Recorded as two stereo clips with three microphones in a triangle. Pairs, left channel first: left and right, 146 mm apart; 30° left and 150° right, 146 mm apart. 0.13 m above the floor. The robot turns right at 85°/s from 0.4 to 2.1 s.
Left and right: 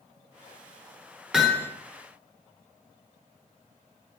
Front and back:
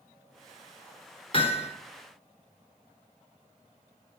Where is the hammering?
5° right, 1.9 m; by 1.7 s 25° left, 1.9 m.